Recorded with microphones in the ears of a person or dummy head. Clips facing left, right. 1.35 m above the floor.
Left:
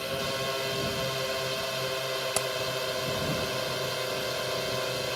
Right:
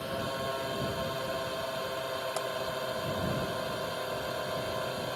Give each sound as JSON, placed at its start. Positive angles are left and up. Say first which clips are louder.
{"t": 0.0, "sound": "a drone", "louder": "left 2 dB", "side_deg": 40}
{"t": 2.4, "sound": "hammering", "louder": "left 3 dB", "side_deg": 50}